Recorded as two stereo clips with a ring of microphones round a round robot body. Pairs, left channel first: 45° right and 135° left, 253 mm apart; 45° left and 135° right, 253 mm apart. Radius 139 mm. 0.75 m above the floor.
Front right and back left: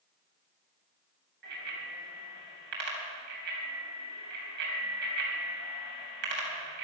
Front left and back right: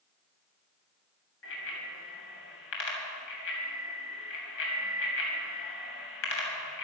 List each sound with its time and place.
1.4 s a bicycle bell: 85° left, 3.5 m